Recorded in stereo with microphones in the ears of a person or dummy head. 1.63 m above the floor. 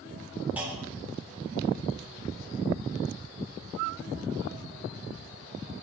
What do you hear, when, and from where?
0.6 s a clunk: 10° right (ahead or behind), 1.1 m